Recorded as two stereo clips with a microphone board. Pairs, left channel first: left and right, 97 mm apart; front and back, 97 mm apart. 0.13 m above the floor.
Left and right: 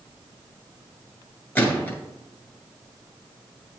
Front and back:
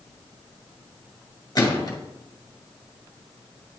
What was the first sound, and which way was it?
A gunshot, 30° left.